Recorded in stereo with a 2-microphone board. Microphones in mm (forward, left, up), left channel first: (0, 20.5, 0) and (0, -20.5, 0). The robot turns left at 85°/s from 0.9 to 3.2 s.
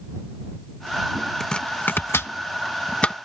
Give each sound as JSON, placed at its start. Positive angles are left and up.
{"t": 1.4, "sound": "chopping", "side_deg": 10}